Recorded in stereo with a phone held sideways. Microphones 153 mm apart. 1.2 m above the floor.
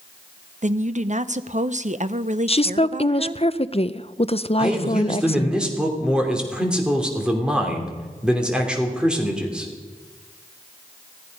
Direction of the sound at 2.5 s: 40° left (ahead or behind).